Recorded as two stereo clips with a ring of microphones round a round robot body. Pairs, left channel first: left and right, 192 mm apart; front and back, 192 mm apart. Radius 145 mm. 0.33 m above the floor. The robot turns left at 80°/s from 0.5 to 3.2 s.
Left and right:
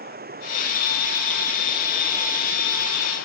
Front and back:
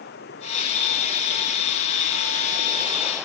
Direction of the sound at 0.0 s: 55° right.